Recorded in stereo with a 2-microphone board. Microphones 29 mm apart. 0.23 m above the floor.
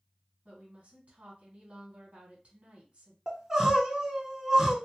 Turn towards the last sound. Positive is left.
turn(degrees=-15)  # may be behind; listen again after turning